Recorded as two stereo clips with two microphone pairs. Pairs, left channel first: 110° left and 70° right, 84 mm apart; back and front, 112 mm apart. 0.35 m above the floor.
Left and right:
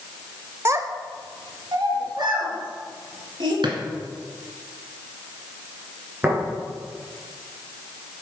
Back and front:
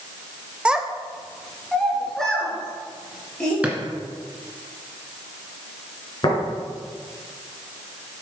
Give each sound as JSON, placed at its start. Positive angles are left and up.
{"t": 0.7, "sound": "a child speaking", "azimuth_deg": -75, "distance_m": 0.7}
{"t": 3.6, "sound": "a drawer", "azimuth_deg": -80, "distance_m": 1.9}
{"t": 6.2, "sound": "tapping", "azimuth_deg": -135, "distance_m": 4.5}